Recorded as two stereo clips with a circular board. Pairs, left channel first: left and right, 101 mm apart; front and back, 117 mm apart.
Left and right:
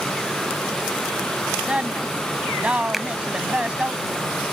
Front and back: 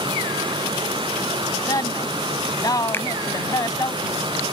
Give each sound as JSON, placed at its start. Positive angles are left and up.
{"t": 1.6, "sound": "a woman speaking", "azimuth_deg": -20}
{"t": 2.9, "sound": "a finger snap", "azimuth_deg": -5}